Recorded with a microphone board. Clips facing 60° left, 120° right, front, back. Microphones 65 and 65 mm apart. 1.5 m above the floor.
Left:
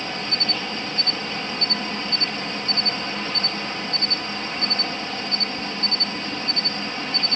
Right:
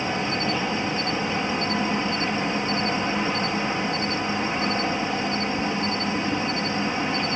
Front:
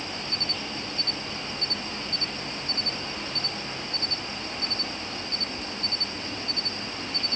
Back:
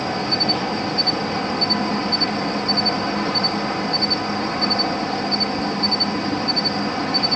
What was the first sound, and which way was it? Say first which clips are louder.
An insect: right 4 dB, back 12 dB; 170° left.